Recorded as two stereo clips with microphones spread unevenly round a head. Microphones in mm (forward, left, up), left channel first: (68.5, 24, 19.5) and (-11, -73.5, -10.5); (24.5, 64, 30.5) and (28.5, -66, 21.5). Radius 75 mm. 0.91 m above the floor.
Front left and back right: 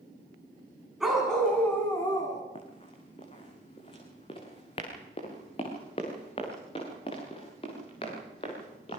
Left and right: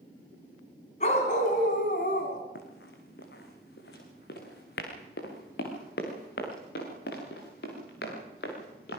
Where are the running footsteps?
100° left, 3.5 m; by 9.0 s 105° left, 7.5 m.